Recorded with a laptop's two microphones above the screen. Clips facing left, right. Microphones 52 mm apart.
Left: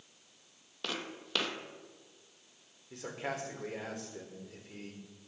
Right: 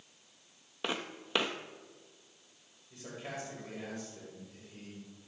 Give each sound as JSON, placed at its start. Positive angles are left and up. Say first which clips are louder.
{"t": 0.8, "sound": "footsteps", "louder": "right 2 dB", "side_deg": -20, "distance_m": 1.2}
{"t": 2.9, "sound": "a man speaking", "louder": "left 4 dB", "side_deg": 85, "distance_m": 3.5}